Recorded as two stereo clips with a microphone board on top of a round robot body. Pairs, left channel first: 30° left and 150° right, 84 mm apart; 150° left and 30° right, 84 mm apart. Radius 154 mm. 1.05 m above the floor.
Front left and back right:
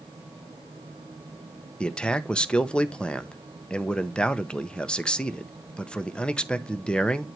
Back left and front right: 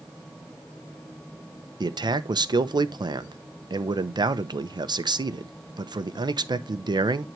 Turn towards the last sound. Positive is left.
turn(degrees=-45)